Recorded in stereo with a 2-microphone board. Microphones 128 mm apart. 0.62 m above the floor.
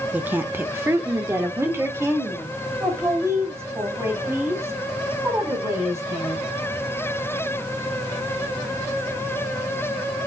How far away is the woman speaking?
About 0.7 m.